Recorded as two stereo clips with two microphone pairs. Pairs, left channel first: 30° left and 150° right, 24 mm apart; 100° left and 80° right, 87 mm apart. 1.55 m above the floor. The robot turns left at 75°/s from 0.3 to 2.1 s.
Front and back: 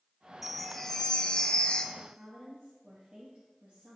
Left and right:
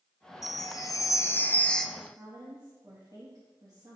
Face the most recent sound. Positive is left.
turn(degrees=-120)